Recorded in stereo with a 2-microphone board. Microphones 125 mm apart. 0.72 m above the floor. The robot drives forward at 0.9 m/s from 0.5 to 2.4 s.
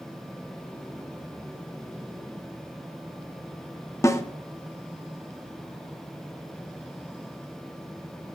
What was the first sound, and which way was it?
A snare drum, 25° left (ahead or behind).